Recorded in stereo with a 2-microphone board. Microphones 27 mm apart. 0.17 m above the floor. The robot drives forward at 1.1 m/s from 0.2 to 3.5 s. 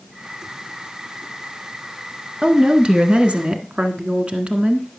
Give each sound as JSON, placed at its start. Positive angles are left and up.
{"t": 2.4, "sound": "a woman speaking", "side_deg": -35, "distance_m": 1.8}